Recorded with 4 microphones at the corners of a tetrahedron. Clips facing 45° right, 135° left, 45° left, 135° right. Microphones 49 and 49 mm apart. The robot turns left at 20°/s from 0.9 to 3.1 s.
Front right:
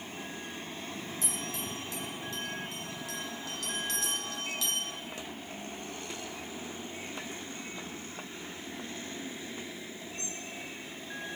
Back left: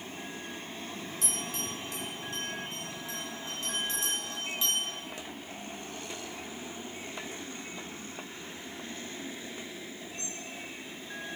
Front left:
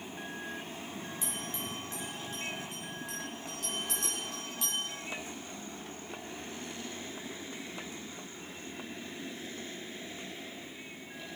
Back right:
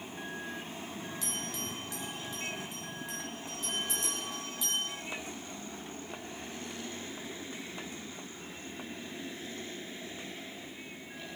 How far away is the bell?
About 4 m.